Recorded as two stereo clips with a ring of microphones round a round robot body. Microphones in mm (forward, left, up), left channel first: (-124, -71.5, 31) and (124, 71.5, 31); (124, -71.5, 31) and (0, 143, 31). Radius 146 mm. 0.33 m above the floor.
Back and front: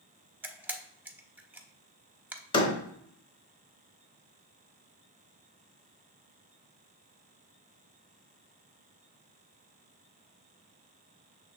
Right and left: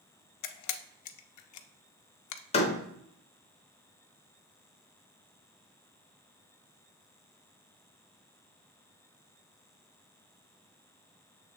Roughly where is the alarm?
I don't hear an alarm.